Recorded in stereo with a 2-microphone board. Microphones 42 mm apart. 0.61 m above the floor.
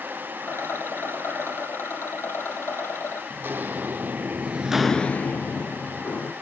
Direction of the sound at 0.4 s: 85° left.